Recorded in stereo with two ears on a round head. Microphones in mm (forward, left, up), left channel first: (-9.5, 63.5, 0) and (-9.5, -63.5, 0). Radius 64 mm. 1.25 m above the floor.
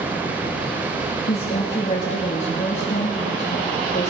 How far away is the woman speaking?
About 2.5 m.